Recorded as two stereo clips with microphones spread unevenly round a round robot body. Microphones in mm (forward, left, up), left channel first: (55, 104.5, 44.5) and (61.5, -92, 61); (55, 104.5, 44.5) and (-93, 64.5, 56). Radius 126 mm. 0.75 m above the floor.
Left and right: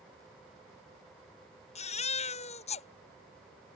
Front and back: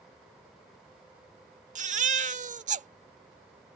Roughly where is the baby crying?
Behind left.